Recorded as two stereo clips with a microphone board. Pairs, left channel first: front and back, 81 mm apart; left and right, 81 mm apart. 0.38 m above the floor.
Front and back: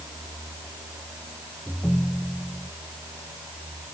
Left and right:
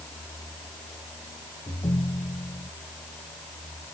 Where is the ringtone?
85° left.